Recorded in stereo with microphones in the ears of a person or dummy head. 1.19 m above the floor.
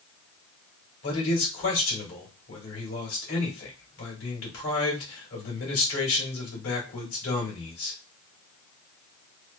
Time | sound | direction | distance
1.0 | a man speaking | 65° left (ahead or behind) | 1.5 m